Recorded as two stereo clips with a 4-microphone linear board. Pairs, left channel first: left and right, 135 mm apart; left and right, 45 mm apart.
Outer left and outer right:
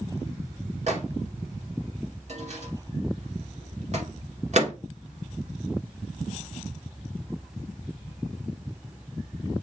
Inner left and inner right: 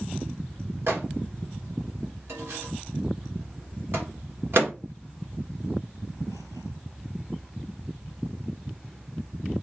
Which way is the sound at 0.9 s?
55° right (ahead or behind).